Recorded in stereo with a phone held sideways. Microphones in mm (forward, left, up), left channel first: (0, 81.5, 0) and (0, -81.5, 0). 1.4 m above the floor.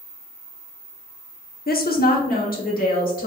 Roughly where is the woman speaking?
Left.